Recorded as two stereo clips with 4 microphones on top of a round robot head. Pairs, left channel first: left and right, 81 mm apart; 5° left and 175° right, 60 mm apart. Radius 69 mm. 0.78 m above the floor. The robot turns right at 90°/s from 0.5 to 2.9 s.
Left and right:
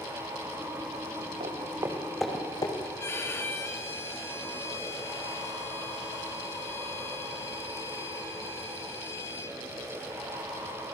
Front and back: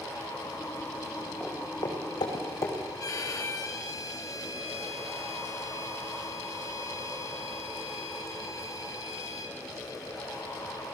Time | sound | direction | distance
1.4 | footsteps | 80° right | 3.5 m
3.0 | a violin | 30° left | 2.5 m